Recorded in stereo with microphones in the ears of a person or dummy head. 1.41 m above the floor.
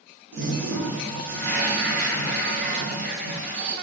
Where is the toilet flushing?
70° right (ahead or behind), 0.9 m.